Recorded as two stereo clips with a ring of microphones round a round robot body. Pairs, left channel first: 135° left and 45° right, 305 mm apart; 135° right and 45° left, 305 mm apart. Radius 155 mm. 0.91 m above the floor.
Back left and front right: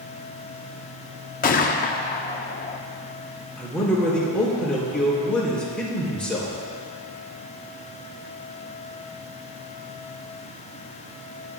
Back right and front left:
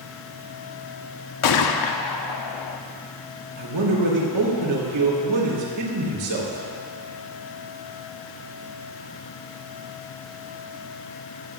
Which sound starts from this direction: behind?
A gunshot, at 1.4 s.